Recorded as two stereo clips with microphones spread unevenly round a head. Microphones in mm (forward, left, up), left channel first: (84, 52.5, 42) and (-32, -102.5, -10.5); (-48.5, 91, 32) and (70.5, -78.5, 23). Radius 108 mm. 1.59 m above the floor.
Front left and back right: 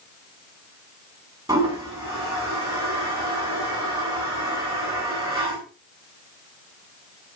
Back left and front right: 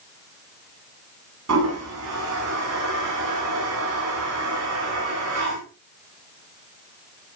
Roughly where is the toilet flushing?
Ahead right.